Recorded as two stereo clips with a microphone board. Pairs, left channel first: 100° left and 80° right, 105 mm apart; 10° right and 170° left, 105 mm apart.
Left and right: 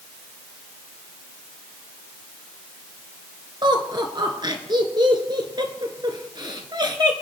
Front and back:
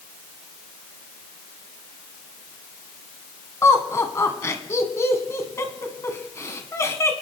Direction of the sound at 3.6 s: 65° right.